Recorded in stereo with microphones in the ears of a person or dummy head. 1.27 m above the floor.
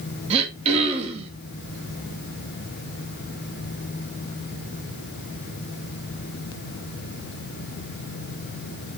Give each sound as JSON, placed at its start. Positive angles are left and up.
{"t": 0.3, "sound": "throat clearing", "side_deg": -35, "distance_m": 1.9}